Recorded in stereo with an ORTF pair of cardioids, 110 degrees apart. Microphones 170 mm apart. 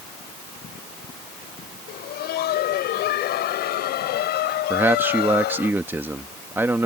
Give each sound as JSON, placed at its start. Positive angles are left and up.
{"t": 1.9, "sound": "laughter", "azimuth_deg": 70}
{"t": 4.7, "sound": "a man speaking", "azimuth_deg": -10}